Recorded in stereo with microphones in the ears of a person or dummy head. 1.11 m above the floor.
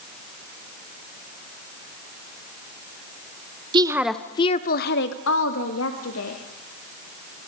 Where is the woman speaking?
25° right (ahead or behind), 0.8 m; by 6.4 s 80° left, 2.5 m.